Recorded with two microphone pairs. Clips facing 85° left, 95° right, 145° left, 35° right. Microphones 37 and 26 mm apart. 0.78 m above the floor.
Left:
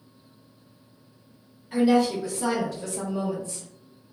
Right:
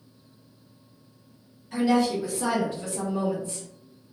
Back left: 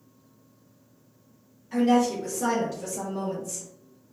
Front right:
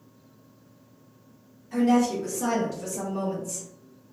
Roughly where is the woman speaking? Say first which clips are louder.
Left 2 dB, even; left.